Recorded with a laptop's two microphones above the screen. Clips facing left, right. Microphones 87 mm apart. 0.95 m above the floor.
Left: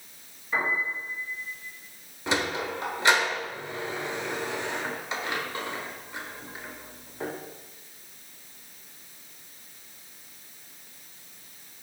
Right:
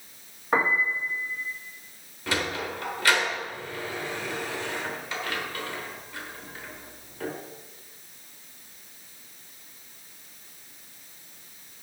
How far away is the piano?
About 1.7 m.